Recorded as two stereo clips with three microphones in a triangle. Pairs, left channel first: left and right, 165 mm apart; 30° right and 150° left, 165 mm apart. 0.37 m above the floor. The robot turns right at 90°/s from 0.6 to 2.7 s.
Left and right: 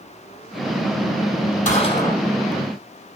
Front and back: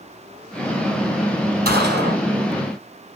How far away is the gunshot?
About 4 m.